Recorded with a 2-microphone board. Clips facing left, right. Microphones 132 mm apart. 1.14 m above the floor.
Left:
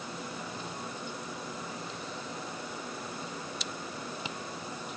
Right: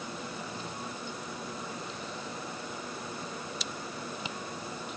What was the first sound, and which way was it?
Only background noise.